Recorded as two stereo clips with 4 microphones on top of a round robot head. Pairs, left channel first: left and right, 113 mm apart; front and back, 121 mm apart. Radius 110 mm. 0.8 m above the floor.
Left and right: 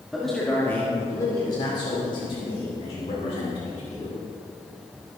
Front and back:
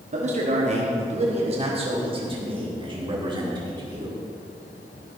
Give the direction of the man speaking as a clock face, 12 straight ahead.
6 o'clock.